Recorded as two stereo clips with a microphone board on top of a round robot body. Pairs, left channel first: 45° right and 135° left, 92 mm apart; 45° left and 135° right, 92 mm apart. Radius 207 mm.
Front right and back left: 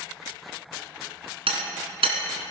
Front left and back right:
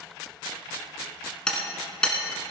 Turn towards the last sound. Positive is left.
turn(degrees=125)